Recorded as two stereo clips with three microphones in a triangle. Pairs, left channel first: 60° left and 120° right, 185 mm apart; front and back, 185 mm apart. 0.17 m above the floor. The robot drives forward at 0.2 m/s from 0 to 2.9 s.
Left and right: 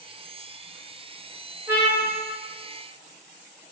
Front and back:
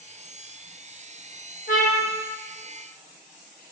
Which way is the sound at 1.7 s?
45° right.